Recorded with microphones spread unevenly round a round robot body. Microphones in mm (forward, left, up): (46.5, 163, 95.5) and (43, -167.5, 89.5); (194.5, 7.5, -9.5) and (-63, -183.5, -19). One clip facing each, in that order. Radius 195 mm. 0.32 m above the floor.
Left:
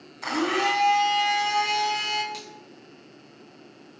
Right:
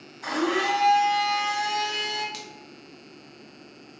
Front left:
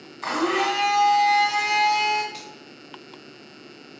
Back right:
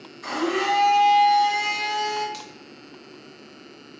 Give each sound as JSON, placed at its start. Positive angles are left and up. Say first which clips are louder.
{"t": 0.2, "sound": "a blender", "louder": "even, even", "azimuth_deg": 70, "distance_m": 1.4}
{"t": 2.3, "sound": "a finger snap", "louder": "left 1 dB, even", "azimuth_deg": -145, "distance_m": 0.8}